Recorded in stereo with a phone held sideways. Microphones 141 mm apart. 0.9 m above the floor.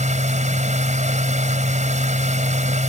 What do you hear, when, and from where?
0.0 s a machine running: 60° right (ahead or behind)